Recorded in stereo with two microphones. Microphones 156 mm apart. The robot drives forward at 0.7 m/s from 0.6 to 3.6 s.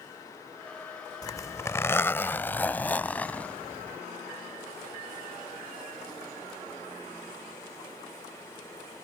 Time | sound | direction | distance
1.2 | a zipper | 25° left (ahead or behind) | ?